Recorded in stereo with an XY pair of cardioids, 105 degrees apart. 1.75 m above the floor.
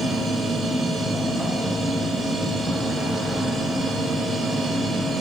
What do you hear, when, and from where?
0.0 s a machine running: 25° right, 5.5 m